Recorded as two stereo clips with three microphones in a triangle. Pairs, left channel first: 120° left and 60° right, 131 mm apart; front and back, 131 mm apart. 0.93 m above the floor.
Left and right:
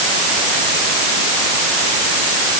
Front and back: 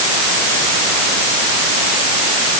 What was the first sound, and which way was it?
Only background noise.